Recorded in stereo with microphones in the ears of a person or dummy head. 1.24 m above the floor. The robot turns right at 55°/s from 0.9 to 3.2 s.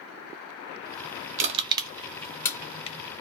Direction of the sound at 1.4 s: 35° right (ahead or behind).